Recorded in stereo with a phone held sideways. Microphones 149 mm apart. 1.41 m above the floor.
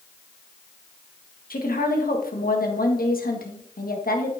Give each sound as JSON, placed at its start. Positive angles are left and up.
{"t": 1.5, "sound": "a woman speaking", "side_deg": 80, "distance_m": 1.7}